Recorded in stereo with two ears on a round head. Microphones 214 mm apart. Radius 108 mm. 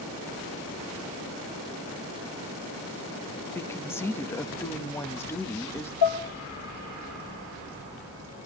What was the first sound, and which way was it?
A woman speaking, 10° left (ahead or behind).